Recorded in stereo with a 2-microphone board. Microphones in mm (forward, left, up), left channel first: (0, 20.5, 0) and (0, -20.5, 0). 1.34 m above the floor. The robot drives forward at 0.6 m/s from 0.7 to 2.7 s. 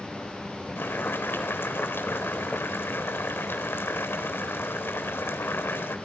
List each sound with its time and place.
0.8 s boiling: 80° left, 4 m; by 6.0 s 85° left, 4 m